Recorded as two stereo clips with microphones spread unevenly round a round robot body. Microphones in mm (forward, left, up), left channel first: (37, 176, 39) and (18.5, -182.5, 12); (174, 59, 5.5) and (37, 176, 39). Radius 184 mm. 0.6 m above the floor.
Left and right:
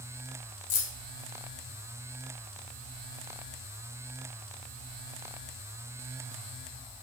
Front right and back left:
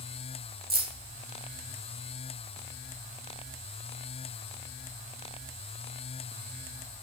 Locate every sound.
0.7 s keys jangling: 100° left, 1.7 m